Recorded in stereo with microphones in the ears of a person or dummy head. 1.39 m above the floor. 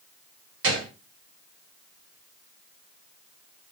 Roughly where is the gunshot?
Right.